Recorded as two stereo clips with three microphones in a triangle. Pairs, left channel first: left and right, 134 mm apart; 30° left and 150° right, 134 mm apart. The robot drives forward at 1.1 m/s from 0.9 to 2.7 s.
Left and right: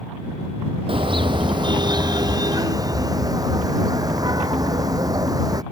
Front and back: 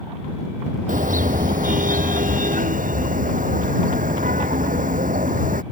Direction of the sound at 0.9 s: 140° right.